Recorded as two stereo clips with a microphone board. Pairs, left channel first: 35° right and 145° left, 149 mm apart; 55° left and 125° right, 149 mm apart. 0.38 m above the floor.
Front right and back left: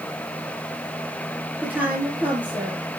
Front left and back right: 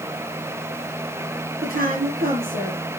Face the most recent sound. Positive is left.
turn(degrees=-135)